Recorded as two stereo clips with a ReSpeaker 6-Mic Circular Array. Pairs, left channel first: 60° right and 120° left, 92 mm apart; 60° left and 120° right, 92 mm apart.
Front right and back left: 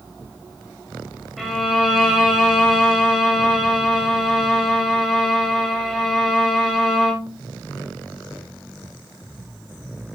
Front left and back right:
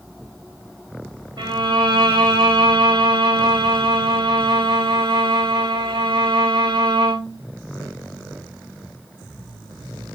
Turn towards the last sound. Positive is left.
turn(degrees=-150)